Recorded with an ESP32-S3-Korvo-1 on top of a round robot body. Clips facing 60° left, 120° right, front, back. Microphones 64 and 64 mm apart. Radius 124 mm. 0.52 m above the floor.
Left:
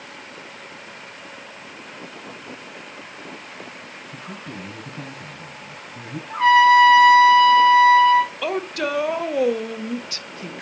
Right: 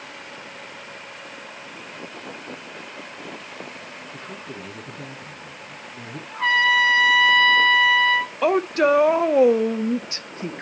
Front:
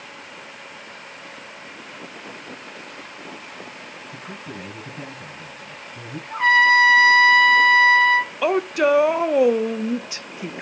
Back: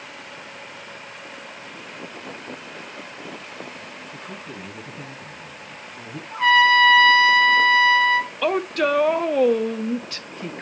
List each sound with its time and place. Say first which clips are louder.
4.1 s a man speaking: left 2 dB, front 2 dB; 45° left, 6 m
6.3 s a trumpet: left 7 dB, even; 60° left, 2.5 m
8.4 s a woman speaking: right 6 dB, front 2 dB; 75° right, 0.8 m